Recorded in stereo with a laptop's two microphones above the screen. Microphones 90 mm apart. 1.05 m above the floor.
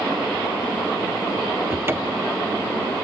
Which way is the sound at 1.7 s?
25° right (ahead or behind).